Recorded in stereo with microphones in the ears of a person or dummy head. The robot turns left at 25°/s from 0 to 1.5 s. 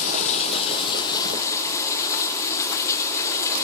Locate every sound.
0.0 s running water: 55° left, 0.9 m; by 3.6 s 20° left, 0.9 m